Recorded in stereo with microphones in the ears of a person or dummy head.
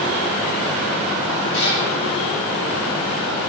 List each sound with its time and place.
1.5 s a cat meowing: 65° left (ahead or behind), 3.5 m